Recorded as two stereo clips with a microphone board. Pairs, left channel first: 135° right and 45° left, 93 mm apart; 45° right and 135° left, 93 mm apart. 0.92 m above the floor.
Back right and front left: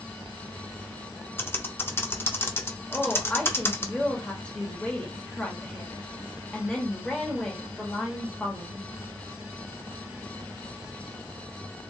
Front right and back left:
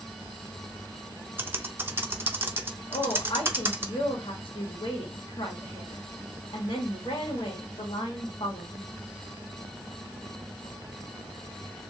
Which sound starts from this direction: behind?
Typing on a keyboard, at 1.4 s.